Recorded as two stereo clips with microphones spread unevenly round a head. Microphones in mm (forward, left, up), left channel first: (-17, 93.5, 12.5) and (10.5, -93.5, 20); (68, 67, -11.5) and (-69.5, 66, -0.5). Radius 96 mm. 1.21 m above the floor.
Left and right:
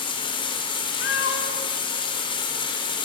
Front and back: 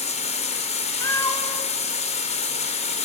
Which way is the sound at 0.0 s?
35° left.